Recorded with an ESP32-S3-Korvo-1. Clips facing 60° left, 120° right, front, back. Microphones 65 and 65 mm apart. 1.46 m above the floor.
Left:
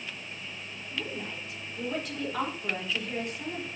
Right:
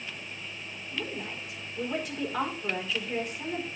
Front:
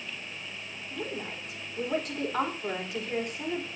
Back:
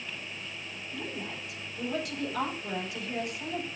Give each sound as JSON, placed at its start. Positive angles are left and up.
{"t": 0.9, "sound": "a woman speaking", "azimuth_deg": -35, "distance_m": 4.0}